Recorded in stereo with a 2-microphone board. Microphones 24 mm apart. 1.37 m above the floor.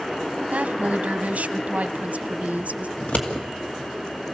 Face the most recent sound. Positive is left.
turn(degrees=85)